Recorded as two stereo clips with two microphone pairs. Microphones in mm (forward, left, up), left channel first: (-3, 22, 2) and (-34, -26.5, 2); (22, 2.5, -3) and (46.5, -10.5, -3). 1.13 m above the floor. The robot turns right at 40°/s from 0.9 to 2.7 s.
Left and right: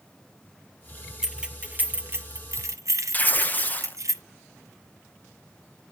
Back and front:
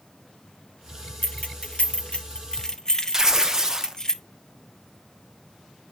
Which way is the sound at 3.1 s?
15° left.